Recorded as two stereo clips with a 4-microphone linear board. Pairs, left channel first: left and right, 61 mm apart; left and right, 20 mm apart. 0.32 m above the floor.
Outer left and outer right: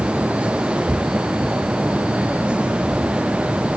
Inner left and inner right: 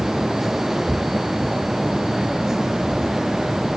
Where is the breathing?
I don't hear breathing.